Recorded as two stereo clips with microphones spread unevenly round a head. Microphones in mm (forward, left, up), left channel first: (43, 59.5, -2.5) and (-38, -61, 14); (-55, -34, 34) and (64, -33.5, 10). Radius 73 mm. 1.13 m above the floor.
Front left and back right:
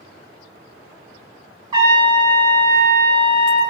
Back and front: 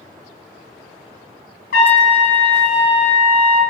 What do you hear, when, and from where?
1.7 s a trumpet: 170° left, 2.5 m